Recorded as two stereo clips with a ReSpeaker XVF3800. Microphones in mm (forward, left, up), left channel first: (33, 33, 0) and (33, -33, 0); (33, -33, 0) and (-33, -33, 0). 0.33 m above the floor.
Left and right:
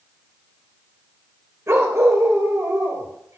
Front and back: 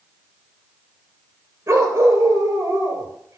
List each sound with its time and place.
1.7 s a dog barking: 140° right, 3 m